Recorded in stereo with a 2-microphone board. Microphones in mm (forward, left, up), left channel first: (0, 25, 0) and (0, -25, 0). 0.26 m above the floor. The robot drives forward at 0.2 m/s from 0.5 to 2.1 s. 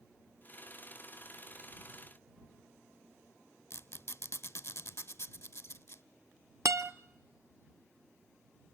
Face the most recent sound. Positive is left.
turn(degrees=-65)  # may be behind; listen again after turning